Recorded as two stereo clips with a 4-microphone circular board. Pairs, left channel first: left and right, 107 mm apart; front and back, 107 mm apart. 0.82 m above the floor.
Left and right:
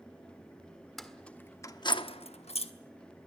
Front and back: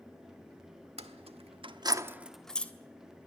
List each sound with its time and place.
1.0 s keys jangling: 175° left, 1.4 m; by 2.7 s 75° left, 1.2 m